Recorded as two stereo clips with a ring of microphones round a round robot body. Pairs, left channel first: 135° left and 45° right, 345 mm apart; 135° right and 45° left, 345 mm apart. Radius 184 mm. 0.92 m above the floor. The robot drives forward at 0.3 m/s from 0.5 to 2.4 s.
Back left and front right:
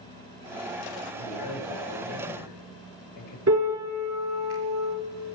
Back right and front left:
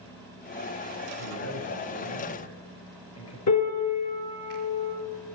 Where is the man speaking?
175° left, 4 m.